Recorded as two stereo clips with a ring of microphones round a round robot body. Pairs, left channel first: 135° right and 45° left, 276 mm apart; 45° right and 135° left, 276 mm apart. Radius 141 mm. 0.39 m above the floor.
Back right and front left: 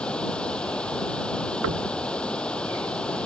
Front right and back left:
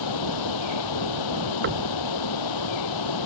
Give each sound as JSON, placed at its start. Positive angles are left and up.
{"t": 0.0, "sound": "running water", "azimuth_deg": -50}
{"t": 1.6, "sound": "knocking", "azimuth_deg": 85}